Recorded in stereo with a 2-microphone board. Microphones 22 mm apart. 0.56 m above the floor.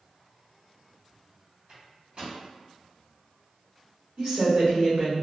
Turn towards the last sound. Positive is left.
turn(degrees=-45)  # may be behind; listen again after turning